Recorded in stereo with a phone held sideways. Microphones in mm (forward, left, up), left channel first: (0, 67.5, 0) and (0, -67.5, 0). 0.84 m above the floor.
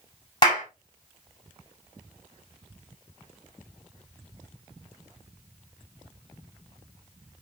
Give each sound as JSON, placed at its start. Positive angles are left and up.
{"t": 0.4, "sound": "a clap", "side_deg": 35, "distance_m": 5.0}